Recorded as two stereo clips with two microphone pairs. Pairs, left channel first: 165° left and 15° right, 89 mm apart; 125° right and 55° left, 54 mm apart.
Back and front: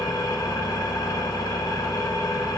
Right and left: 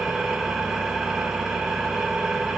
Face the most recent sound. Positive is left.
turn(degrees=140)